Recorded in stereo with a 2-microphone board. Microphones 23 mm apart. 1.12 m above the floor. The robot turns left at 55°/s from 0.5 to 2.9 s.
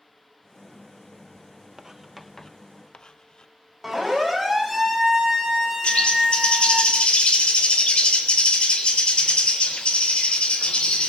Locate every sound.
1.8 s writing: 20° right (ahead or behind), 0.6 m; by 3.5 s 40° left (ahead or behind), 0.6 m
3.8 s a siren: 10° right (ahead or behind), 5.5 m; by 6.8 s 25° right (ahead or behind), 4 m
5.8 s a bird: 60° left (ahead or behind), 3.5 m